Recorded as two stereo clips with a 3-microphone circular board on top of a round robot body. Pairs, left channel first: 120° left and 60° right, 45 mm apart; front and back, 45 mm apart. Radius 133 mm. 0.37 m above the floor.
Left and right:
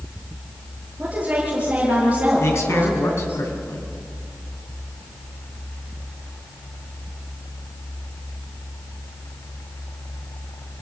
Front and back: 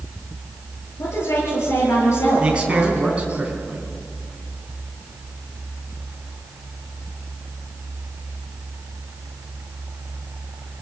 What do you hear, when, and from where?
1.0 s a woman speaking: 10° left, 8.5 m
2.4 s a man speaking: 115° left, 4 m